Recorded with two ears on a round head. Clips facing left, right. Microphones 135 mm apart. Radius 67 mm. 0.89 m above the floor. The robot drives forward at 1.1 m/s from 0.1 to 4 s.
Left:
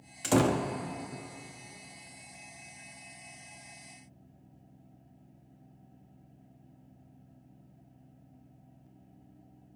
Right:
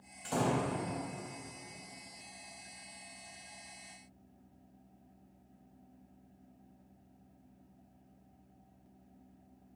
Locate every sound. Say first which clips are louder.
0.2 s a door slam: left 6 dB; 80° left, 0.6 m; by 0.7 s 50° left (ahead or behind), 0.8 m